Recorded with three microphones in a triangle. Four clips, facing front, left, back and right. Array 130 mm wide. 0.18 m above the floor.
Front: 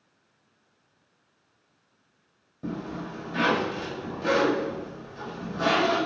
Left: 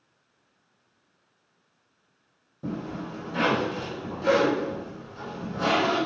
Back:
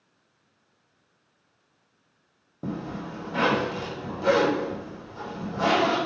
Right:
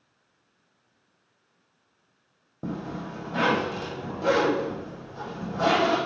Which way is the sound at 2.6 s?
115° right.